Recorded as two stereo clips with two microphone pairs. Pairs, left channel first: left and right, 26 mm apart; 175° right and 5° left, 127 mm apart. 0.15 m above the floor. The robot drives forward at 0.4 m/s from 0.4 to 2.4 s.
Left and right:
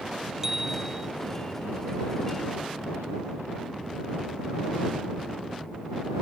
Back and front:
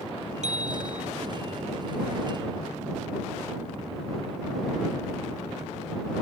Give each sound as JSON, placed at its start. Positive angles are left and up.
{"t": 0.4, "sound": "a bicycle bell", "azimuth_deg": -15}